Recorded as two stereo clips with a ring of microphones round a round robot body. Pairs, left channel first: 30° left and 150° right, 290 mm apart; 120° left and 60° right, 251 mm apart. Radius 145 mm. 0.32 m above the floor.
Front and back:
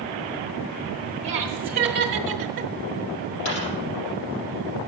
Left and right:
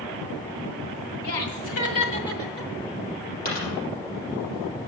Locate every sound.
1.2 s laughter: 145° left, 1.9 m; by 2.7 s 145° right, 1.1 m
3.5 s a dropped coin: 65° left, 5 m